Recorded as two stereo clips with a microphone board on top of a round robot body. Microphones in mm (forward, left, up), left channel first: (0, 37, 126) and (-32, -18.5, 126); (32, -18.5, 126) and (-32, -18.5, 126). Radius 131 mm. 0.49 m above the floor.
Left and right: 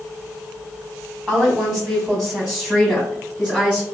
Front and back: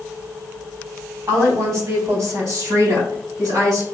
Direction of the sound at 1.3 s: 155° left.